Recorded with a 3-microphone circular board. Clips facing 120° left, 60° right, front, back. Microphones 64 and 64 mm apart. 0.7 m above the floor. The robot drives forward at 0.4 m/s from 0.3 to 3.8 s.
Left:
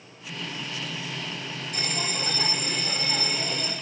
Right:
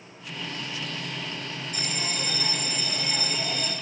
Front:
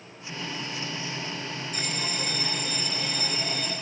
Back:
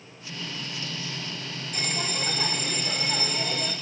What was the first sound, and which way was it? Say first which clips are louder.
A bell: left 2 dB, back 3 dB; 155° left.